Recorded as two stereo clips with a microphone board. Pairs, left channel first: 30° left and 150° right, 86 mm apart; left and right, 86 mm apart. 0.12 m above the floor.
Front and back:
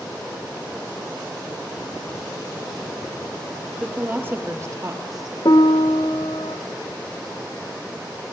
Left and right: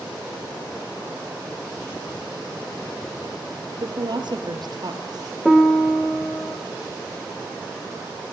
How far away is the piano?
About 1.1 m.